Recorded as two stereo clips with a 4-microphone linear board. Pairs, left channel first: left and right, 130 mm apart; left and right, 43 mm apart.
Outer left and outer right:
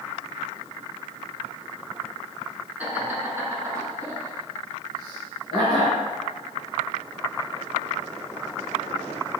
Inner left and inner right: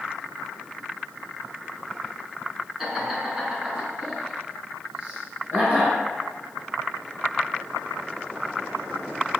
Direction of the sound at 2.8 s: 15° right (ahead or behind).